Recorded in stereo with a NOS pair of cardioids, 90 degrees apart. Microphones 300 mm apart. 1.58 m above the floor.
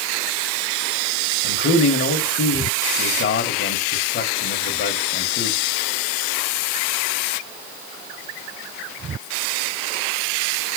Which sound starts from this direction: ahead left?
A man speaking, at 1.4 s.